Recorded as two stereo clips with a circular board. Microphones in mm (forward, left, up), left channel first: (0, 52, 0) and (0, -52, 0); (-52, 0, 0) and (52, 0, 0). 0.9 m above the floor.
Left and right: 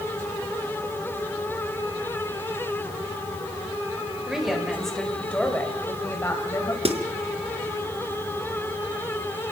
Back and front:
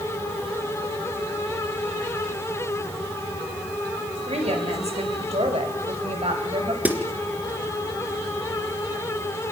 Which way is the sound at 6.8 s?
75° right.